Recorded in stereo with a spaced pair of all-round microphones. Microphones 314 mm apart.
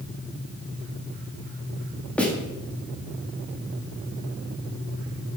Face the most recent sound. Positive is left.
turn(degrees=5)  # may be behind; listen again after turning